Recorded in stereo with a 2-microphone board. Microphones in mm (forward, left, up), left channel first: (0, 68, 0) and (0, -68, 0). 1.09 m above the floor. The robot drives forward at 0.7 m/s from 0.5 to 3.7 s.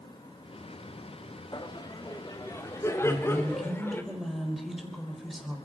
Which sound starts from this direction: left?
Laughter, at 1.5 s.